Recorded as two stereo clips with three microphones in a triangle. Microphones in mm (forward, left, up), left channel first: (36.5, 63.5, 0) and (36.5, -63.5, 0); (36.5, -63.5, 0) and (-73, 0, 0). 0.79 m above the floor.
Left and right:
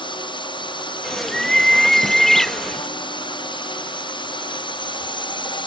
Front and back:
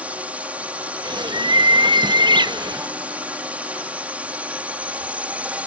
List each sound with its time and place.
0.0 s a drone: 75° left
1.0 s a bird: 175° left